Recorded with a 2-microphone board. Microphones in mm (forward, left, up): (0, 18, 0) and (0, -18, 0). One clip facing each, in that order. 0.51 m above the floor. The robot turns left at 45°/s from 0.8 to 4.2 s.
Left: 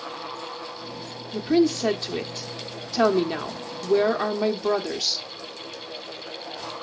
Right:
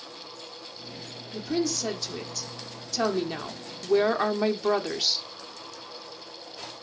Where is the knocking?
No knocking in this recording.